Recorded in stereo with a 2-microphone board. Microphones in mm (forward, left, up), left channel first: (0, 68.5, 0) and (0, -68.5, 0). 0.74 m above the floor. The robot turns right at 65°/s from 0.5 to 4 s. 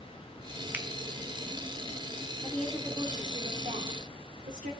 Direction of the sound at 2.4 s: 165° left.